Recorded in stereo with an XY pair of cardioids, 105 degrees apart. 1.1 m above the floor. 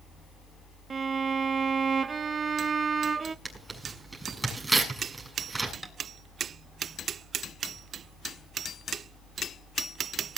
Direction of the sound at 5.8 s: 5° right.